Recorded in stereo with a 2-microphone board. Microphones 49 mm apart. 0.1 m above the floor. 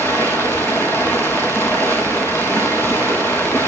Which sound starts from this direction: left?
Running water, at 0.0 s.